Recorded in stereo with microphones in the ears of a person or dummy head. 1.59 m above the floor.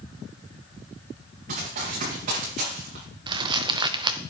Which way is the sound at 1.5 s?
50° right (ahead or behind).